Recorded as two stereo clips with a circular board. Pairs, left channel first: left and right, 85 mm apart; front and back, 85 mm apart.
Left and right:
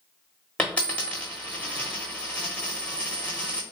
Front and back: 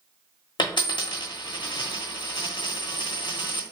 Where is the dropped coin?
15° left, 1.0 m.